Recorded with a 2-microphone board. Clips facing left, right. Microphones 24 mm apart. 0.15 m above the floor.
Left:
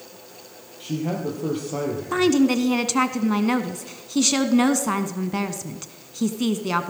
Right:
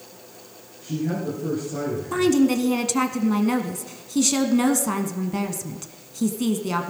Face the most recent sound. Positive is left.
turn(degrees=15)  # may be behind; listen again after turning